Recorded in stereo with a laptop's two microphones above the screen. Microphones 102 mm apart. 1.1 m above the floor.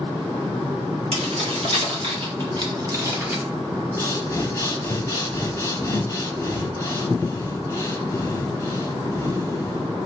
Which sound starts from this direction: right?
Keys jangling, at 1.1 s.